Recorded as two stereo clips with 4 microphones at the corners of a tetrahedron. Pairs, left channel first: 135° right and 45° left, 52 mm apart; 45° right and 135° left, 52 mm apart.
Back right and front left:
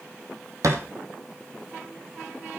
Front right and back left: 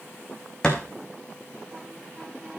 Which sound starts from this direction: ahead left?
A thud, at 0.6 s.